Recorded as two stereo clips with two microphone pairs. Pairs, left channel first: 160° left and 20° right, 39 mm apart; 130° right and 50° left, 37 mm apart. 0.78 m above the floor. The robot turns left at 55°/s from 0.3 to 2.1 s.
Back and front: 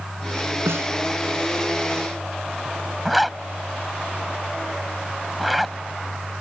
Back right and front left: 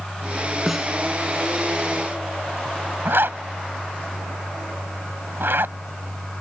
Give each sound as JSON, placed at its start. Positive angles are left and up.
{"t": 0.7, "sound": "a snare drum", "azimuth_deg": -30}
{"t": 3.0, "sound": "a zipper", "azimuth_deg": 65}